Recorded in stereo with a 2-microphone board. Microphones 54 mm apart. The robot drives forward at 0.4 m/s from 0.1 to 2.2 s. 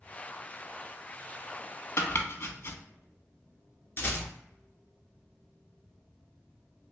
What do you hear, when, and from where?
2.0 s chopping: 55° left (ahead or behind), 0.6 m; by 2.8 s 50° left (ahead or behind), 0.6 m
4.0 s a rattle: 45° left (ahead or behind), 1.1 m